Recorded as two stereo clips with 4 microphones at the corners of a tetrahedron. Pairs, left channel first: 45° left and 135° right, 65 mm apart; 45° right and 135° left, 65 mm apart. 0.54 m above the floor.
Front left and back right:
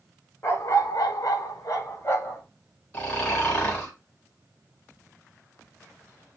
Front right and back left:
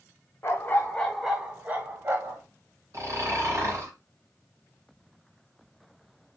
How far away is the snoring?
About 2.5 m.